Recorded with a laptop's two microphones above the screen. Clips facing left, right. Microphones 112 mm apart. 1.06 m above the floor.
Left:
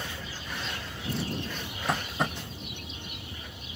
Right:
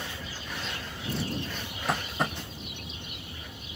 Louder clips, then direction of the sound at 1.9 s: Even; centre (ahead or behind).